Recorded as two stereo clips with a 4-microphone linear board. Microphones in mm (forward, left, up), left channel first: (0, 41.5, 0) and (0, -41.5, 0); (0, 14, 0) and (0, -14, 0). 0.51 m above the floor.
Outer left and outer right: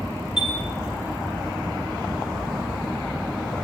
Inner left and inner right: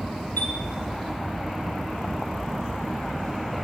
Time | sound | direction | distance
0.4 | a chime | 65° left (ahead or behind) | 1.5 m